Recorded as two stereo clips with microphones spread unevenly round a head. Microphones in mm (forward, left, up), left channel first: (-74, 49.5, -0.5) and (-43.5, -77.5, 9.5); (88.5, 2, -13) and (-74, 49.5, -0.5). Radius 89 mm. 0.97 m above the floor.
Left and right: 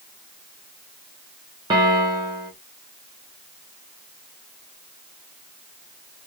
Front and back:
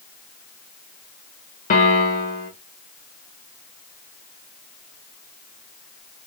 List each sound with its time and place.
1.7 s a piano: 20° right, 0.8 m